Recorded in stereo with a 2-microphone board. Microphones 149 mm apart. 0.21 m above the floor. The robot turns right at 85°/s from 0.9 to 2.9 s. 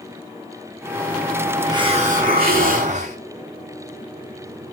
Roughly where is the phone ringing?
No phone ringing in this recording.